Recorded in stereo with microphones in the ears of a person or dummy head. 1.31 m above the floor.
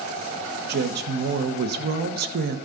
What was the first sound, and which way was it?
A woman speaking, 55° right (ahead or behind).